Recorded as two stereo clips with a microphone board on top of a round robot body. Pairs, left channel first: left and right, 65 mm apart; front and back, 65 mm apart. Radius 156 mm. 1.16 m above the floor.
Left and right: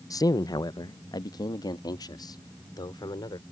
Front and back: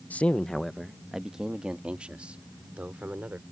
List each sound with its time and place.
0.1 s a man speaking: 65° left; by 3.4 s 110° left